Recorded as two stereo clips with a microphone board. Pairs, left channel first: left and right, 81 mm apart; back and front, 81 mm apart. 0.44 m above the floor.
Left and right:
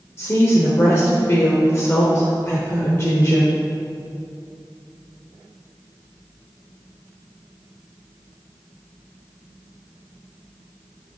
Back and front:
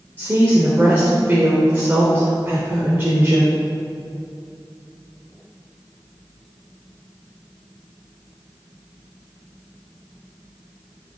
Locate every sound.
0.2 s a woman speaking: 50° left, 1.1 m